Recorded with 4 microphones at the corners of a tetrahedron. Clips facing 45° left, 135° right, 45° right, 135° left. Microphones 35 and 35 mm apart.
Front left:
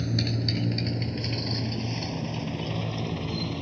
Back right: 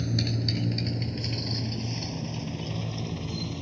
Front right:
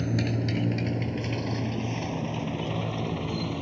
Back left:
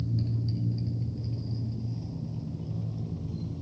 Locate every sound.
0.0 s a motorcycle: 35° right; by 3.6 s 20° right